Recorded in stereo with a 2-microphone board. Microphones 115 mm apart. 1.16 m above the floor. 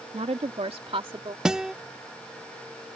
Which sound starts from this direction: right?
A woman speaking, at 0.1 s.